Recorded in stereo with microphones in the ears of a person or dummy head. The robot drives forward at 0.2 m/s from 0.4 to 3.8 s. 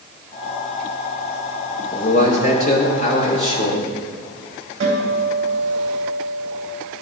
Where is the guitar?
30° right (ahead or behind), 3 m.